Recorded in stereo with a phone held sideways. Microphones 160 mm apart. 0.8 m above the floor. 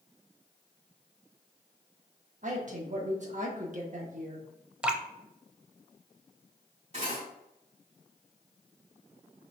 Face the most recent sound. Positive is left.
turn(degrees=-40)  # may be behind; listen again after turning